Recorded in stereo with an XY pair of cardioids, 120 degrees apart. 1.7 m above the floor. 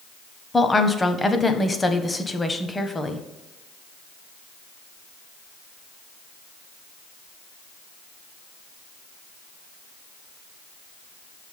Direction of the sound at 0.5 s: 15° left.